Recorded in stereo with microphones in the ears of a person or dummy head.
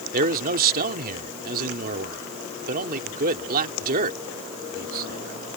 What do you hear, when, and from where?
0.1 s a man speaking: 55° right (ahead or behind)